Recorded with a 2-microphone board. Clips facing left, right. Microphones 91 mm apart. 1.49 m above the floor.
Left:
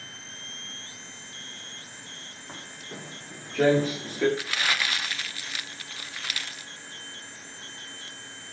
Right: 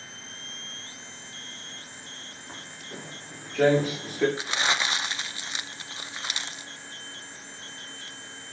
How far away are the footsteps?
About 7.5 m.